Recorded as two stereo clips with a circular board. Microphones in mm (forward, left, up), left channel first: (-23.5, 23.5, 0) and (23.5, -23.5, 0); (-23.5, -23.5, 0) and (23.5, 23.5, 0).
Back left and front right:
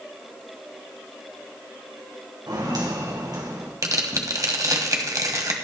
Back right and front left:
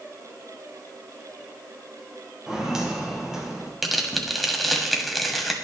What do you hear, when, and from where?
2.5 s footsteps: 35° right, 4 m
3.8 s tearing paper: 45° right, 1.7 m